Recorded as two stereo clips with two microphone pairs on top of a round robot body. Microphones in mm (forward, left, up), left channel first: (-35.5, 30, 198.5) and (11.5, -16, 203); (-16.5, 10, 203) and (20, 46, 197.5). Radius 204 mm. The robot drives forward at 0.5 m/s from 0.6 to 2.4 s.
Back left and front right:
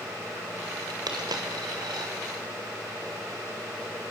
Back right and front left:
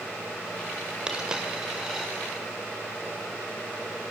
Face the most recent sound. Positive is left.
turn(degrees=-45)